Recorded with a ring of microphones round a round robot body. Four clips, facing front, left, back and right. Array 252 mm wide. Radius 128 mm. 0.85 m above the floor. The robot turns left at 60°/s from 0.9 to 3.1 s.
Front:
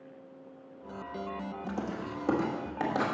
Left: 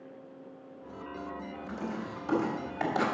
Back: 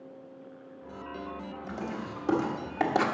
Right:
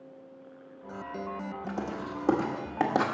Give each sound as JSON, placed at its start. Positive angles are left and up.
{"t": 1.7, "sound": "writing", "azimuth_deg": -35, "distance_m": 1.6}